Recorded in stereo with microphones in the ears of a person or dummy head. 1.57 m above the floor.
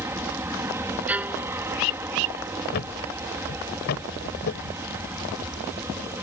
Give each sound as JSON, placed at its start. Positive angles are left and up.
{"t": 0.0, "sound": "an aircraft", "side_deg": -15}
{"t": 1.1, "sound": "a violin", "side_deg": -10}
{"t": 2.7, "sound": "a thud", "side_deg": 45}